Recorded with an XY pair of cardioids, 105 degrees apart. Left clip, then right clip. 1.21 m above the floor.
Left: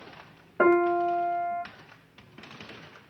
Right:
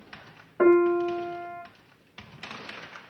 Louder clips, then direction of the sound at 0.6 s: Right 1 dB; 30° left.